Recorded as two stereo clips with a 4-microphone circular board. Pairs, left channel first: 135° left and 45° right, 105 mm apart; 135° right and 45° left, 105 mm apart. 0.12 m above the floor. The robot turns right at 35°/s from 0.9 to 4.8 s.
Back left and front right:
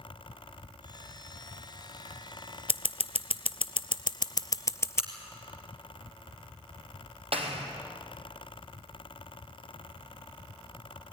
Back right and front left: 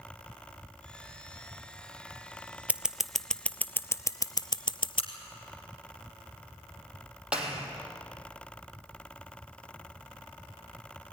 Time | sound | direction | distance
2.7 | scissors | 120° left | 0.6 m
5.0 | a crack | 125° right | 3.5 m
7.3 | a clap | 35° right | 3.5 m